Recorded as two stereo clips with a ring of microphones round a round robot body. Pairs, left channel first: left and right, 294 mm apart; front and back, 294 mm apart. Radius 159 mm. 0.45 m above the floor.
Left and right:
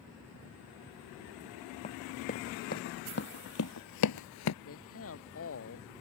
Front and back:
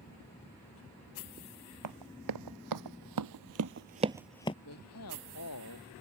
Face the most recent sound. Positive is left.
turn(degrees=45)